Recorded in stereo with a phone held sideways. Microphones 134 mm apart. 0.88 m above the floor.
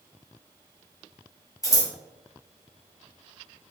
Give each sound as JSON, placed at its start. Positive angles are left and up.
{"t": 1.6, "sound": "scissors", "side_deg": 25, "distance_m": 2.0}